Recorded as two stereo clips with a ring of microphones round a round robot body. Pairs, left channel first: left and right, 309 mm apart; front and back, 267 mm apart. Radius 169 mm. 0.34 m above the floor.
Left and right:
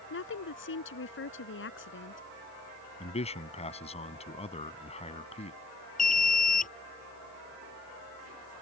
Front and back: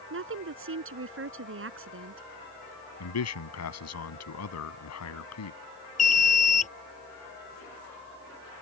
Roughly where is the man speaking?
Ahead.